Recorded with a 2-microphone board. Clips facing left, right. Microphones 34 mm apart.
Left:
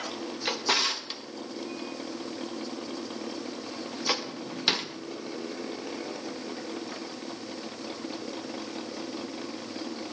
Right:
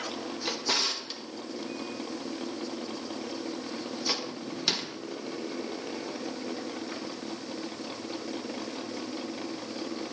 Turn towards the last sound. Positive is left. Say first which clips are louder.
# left 3 dB
turn(degrees=25)  # may be behind; listen again after turning